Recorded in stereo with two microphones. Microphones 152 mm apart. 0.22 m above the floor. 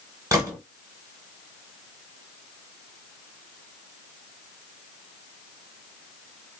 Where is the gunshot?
20° right (ahead or behind), 1.2 m.